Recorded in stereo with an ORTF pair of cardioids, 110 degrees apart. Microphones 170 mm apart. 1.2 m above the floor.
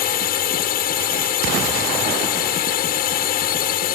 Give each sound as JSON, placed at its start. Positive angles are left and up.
{"t": 0.0, "sound": "a drone", "azimuth_deg": 65}